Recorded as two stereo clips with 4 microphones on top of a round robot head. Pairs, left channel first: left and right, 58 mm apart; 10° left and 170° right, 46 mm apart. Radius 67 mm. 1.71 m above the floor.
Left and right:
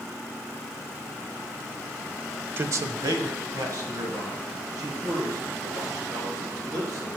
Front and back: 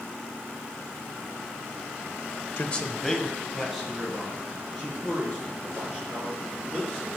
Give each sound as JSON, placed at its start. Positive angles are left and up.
{"t": 2.6, "sound": "a man speaking", "azimuth_deg": -35, "distance_m": 0.5}